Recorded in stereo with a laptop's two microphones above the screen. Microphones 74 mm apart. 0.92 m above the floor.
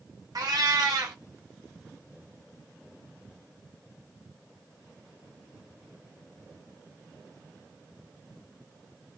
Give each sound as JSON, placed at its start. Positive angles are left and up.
{"t": 0.3, "sound": "a cat meowing", "side_deg": -65, "distance_m": 1.1}